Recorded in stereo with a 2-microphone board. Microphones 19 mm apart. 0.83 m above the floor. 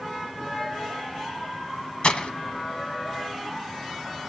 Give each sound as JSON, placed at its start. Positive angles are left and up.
{"t": 2.0, "sound": "breaking glass", "side_deg": 55, "distance_m": 1.6}